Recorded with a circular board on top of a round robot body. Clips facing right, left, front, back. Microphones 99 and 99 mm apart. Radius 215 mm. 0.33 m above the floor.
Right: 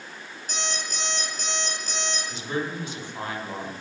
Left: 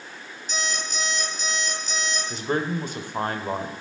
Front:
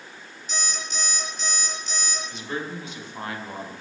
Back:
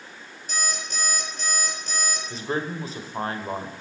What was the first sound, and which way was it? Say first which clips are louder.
An alarm clock: left 2 dB, back 2 dB; 135° right.